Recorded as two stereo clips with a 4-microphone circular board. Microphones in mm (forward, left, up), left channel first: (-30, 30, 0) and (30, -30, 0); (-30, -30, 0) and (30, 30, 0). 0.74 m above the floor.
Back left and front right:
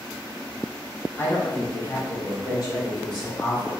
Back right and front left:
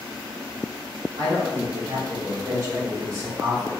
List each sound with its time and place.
1.2 s a woman speaking: 70° left, 1.9 m; by 3.7 s 100° left, 3 m